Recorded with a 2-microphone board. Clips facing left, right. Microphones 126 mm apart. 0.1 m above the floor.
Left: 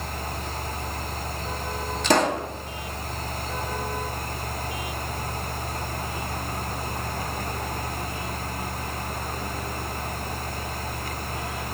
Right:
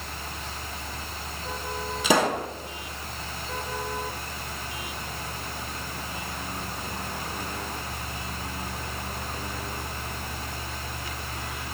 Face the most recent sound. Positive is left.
turn(degrees=-5)  # may be behind; listen again after turning